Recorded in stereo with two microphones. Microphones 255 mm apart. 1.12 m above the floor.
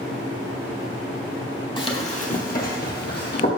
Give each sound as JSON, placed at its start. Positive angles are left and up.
{"t": 1.8, "sound": "running footsteps", "side_deg": 20, "distance_m": 1.4}